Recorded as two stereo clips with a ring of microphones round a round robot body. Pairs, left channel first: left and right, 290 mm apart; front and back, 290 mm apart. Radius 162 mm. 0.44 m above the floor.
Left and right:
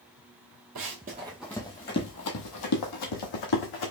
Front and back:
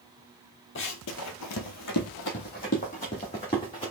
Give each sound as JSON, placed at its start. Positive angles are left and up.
{"t": 0.8, "sound": "running footsteps", "azimuth_deg": -45, "distance_m": 0.8}